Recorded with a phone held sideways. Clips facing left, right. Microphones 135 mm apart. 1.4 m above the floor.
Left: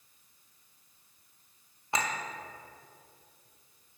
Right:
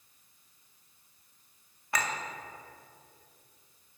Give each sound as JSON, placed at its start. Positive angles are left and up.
{"t": 1.9, "sound": "a clink", "side_deg": 20, "distance_m": 0.6}